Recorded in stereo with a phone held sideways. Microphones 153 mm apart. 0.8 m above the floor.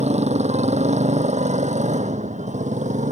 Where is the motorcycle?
45° right (ahead or behind); by 3.1 s 50° right (ahead or behind).